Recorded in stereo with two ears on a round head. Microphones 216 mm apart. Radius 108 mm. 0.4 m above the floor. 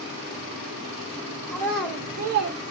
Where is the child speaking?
20° left (ahead or behind), 0.7 m; by 2.6 s 55° right (ahead or behind), 0.7 m.